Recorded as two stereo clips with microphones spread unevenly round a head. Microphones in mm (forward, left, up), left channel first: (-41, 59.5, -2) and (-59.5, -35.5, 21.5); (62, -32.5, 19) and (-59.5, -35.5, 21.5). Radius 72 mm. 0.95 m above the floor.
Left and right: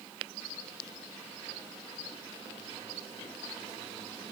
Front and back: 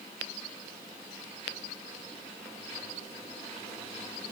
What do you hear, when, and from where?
Only background noise.